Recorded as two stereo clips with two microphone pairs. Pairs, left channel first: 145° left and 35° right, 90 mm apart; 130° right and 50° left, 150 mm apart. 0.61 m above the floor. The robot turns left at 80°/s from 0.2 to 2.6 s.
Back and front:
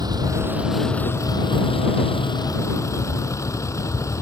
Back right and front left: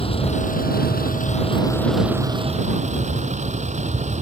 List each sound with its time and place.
0.0 s a vehicle: 75° right; by 4.2 s 90° left